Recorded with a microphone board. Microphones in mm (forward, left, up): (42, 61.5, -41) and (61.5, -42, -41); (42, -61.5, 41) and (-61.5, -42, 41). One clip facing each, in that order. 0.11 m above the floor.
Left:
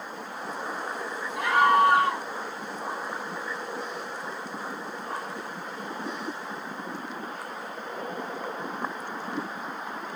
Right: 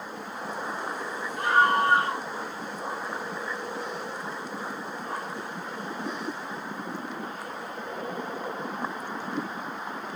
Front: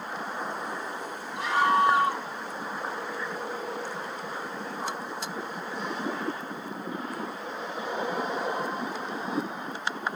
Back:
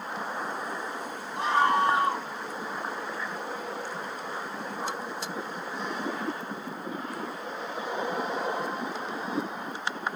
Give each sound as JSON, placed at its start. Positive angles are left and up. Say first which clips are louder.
{"t": 1.4, "sound": "a scream", "louder": "left 2 dB, even", "azimuth_deg": 110, "distance_m": 5.5}